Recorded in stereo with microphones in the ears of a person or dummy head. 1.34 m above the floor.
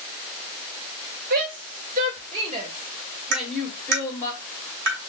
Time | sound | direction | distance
1.3 | a shout | 50° right (ahead or behind) | 1.4 m
3.3 | tapping | 60° right (ahead or behind) | 2.5 m